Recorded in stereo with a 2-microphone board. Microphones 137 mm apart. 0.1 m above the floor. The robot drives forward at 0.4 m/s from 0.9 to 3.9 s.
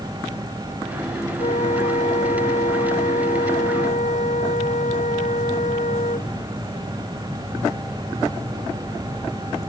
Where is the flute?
60° left (ahead or behind); by 6.3 s 65° left (ahead or behind).